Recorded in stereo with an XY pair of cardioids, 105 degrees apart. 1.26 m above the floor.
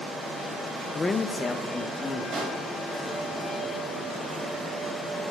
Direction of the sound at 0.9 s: 30° left.